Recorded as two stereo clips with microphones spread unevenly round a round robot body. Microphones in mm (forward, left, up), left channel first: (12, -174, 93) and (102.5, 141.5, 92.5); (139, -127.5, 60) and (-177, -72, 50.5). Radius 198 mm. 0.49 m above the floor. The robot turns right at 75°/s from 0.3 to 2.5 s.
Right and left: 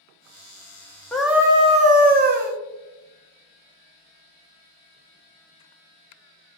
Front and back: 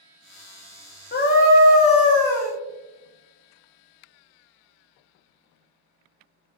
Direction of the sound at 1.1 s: 20° right.